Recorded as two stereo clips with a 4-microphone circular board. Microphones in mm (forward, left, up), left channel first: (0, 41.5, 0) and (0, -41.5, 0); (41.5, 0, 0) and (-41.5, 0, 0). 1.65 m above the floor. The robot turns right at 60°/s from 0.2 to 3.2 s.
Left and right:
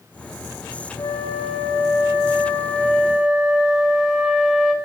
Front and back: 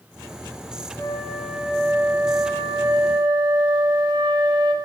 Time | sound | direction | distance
1.0 | a flute | 55° left | 4 m